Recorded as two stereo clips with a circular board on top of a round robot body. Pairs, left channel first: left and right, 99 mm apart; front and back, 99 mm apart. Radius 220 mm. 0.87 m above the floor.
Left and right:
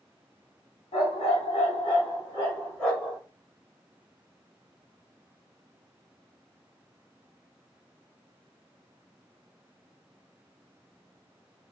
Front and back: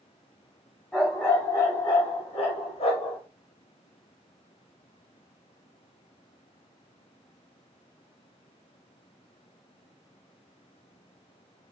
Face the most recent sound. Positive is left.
turn(degrees=0)